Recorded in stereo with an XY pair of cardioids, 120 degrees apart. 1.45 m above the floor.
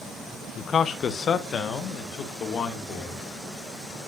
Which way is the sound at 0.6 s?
45° left.